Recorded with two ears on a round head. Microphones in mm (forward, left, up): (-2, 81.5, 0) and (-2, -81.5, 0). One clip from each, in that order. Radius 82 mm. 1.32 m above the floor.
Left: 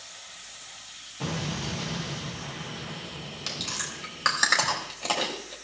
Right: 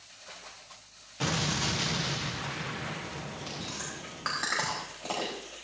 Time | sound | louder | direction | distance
1.2 | an explosion | right 4 dB | 45° right (ahead or behind) | 0.6 m
3.5 | chewing | left 9 dB | 75° left (ahead or behind) | 3 m